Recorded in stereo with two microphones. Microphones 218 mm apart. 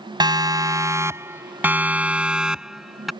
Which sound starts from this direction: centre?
A siren, at 0.2 s.